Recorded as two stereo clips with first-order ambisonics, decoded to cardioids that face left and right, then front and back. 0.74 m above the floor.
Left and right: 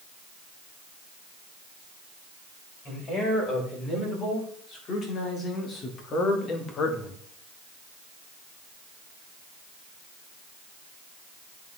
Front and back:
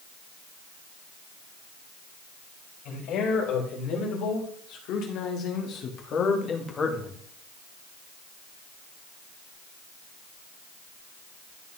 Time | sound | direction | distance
2.9 | a man speaking | 30° left | 3.5 m